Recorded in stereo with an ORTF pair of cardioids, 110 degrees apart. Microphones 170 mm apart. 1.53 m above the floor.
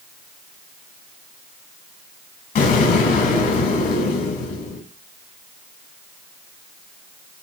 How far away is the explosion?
About 3 m.